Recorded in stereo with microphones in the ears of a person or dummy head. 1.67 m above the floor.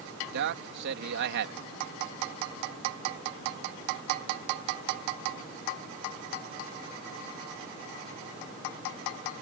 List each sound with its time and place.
0.3 s a man speaking: 65° right (ahead or behind)